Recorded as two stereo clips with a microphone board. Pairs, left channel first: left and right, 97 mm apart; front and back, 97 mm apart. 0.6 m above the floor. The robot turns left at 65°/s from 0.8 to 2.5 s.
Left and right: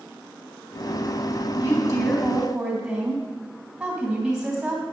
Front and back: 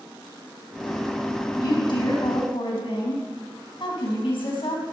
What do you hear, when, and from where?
1.6 s a woman speaking: 50° left, 3 m; by 4.8 s 10° right, 3 m